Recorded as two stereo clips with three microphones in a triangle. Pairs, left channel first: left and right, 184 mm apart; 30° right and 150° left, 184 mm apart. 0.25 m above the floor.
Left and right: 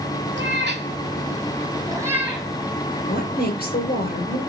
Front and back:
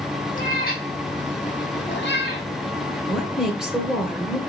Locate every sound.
0.3 s a cat meowing: 75° right, 1.5 m; by 2.5 s straight ahead, 1.4 m
3.1 s a woman speaking: 65° left, 2.5 m